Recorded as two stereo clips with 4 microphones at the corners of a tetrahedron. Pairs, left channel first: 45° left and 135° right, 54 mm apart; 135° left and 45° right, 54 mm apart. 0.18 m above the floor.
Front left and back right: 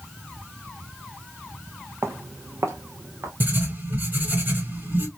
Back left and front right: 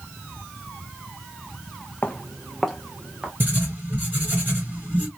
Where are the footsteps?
165° right, 0.6 m; by 3.3 s 115° right, 1.3 m.